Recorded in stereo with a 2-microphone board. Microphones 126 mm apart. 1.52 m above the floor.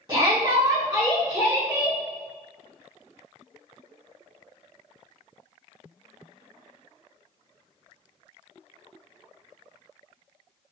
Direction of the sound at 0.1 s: 35° right (ahead or behind).